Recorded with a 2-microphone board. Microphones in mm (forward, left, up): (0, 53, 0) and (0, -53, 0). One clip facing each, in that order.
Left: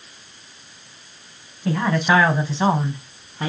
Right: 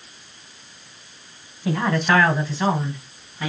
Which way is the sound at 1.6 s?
5° right (ahead or behind).